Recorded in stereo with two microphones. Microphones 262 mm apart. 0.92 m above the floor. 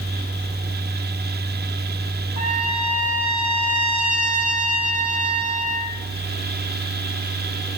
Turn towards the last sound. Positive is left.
turn(degrees=75)  # may be behind; listen again after turning